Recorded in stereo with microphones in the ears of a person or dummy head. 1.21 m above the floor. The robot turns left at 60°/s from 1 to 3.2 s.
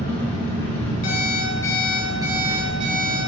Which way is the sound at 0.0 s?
160° left.